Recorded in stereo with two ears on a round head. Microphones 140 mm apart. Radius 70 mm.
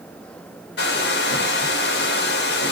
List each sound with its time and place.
0.8 s a hair dryer: 75° left (ahead or behind), 0.8 m